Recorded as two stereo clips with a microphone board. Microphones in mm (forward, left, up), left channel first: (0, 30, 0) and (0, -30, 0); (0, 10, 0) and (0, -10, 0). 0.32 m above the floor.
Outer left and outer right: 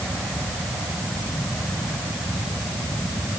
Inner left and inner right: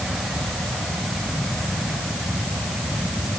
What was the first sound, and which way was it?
Only background noise.